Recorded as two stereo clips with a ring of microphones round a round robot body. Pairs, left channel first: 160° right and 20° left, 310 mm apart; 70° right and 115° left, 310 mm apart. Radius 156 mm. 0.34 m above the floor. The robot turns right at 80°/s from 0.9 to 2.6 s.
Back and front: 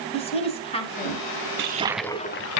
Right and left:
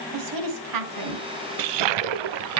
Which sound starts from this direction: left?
A toilet flushing, at 1.6 s.